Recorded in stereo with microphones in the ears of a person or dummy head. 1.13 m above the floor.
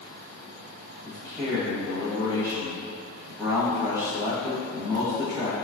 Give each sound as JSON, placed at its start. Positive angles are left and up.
{"t": 1.0, "sound": "a man speaking", "side_deg": 0, "distance_m": 1.2}